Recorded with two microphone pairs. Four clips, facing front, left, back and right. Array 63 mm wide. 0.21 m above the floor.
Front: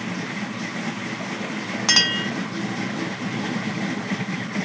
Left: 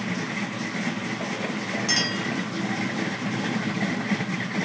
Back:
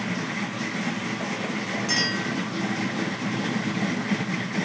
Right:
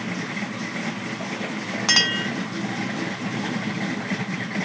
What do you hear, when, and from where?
1.9 s a clink: 55° right, 1.2 m